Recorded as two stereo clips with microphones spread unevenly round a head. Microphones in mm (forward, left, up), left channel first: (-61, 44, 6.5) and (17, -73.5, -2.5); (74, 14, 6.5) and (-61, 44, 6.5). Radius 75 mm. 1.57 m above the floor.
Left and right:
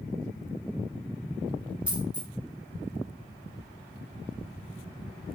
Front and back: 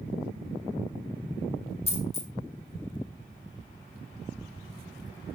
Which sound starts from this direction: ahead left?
A dropped coin, at 1.9 s.